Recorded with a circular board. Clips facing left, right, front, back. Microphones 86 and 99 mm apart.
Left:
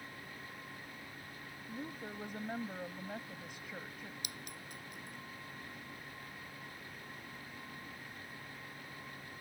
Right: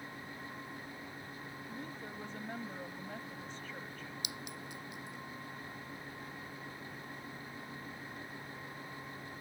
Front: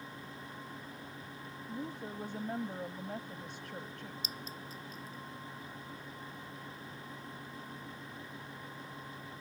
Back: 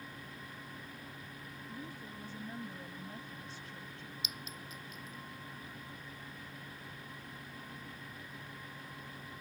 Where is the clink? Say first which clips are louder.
Right 4 dB, front 2 dB; 50° left.